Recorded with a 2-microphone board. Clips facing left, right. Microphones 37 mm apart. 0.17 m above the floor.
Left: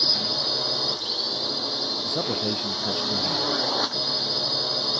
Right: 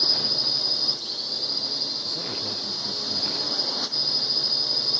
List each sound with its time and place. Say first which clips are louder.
0.0 s a drone: left 1 dB; 40° left (ahead or behind)
2.0 s a man speaking: left 5 dB; 75° left (ahead or behind)